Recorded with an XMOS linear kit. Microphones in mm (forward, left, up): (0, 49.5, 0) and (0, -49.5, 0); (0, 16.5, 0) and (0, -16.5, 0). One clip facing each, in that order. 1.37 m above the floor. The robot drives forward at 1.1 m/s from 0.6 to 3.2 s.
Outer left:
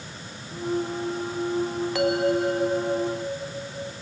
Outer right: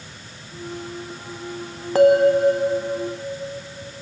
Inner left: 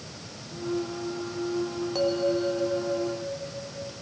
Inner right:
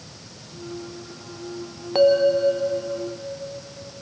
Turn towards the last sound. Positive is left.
turn(degrees=-15)  # may be behind; listen again after turning